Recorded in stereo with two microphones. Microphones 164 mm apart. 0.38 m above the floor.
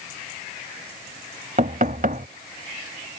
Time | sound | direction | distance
1.6 | knocking | 55° right (ahead or behind) | ?